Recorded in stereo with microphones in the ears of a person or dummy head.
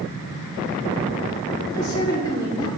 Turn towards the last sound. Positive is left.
turn(degrees=20)  # may be behind; listen again after turning